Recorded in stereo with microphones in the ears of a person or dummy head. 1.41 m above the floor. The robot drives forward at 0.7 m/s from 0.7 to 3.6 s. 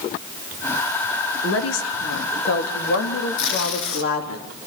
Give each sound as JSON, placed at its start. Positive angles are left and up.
{"t": 1.4, "sound": "a woman speaking", "side_deg": 85, "distance_m": 3.0}
{"t": 3.4, "sound": "tape being pulled", "side_deg": 65, "distance_m": 3.0}